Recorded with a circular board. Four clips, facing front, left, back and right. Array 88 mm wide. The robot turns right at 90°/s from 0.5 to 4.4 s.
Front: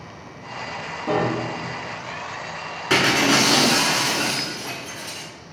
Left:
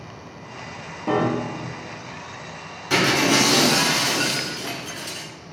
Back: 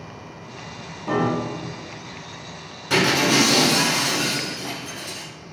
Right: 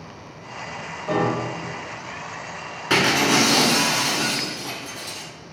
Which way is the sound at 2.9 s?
45° right.